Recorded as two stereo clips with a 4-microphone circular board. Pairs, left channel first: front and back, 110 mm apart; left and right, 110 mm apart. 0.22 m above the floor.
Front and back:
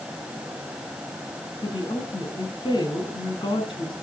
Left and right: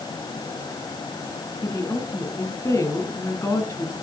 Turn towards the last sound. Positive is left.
turn(degrees=30)